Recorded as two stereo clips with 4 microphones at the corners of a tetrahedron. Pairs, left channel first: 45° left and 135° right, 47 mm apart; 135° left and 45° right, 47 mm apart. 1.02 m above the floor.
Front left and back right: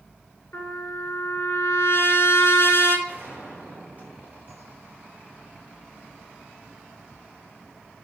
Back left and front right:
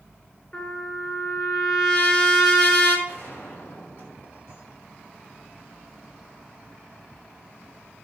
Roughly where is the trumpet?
Left.